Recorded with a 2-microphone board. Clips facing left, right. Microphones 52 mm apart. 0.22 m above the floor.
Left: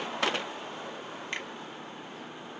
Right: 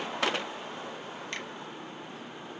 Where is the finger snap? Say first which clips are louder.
Left 3 dB; 20° left (ahead or behind), 0.9 m.